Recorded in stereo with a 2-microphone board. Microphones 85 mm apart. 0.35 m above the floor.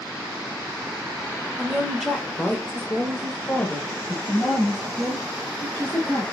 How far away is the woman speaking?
About 1.0 m.